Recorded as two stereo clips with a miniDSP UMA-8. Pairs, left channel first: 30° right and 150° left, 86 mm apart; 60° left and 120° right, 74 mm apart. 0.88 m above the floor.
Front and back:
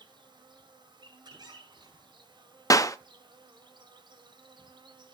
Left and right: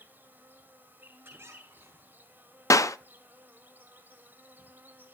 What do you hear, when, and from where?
0.0 s an insect: 175° left, 2 m
1.2 s a squeak: straight behind, 5.5 m
2.7 s a clap: 20° left, 0.6 m